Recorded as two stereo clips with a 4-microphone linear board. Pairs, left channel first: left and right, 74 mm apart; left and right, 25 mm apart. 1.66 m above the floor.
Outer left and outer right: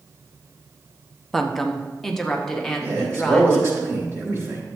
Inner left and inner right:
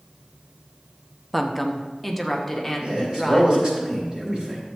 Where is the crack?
No crack in this recording.